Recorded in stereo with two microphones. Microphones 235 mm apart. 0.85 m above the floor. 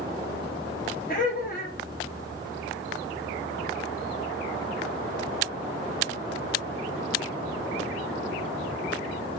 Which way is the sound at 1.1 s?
35° left (ahead or behind).